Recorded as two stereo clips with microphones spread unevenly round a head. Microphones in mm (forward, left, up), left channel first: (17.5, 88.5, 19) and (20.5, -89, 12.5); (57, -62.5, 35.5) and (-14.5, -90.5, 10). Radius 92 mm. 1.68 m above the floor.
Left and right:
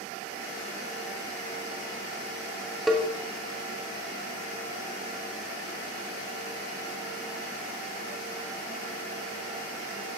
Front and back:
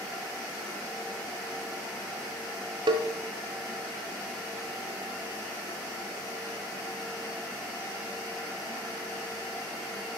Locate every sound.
2.9 s a cowbell: straight behind, 0.8 m